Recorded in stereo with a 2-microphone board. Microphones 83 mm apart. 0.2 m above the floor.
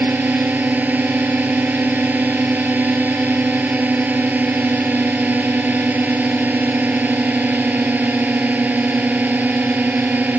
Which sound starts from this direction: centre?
A drone, at 0.0 s.